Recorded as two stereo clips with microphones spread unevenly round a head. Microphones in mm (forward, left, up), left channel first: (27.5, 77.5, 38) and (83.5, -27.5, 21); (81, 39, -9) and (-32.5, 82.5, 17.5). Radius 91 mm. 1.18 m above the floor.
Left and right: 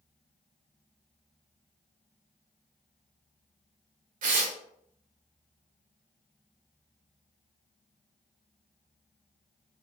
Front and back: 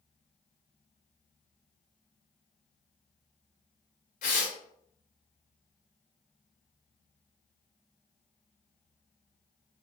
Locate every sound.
4.2 s tearing paper: 65° right, 0.6 m